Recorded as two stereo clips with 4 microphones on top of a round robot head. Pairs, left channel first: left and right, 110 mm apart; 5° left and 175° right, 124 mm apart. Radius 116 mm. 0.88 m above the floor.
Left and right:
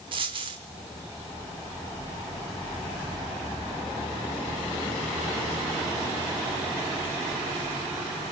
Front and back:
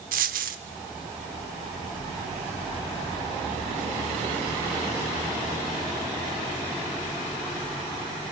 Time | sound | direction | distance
0.1 | a dropped coin | 150° right | 0.7 m